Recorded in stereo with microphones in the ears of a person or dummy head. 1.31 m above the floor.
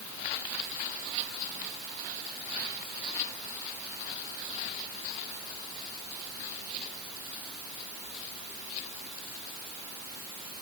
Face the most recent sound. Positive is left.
No sound to turn to.